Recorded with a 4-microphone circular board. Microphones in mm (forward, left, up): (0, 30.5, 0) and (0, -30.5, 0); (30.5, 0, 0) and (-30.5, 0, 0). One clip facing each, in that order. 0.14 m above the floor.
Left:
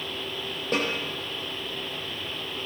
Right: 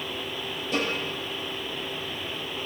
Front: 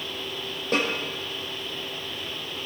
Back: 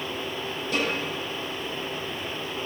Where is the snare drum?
50° left, 5.5 m.